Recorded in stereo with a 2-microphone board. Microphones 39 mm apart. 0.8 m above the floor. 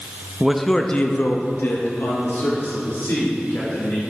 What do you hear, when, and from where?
0.4 s a man speaking: 15° right (ahead or behind), 0.6 m; by 4.0 s 75° left (ahead or behind), 2.5 m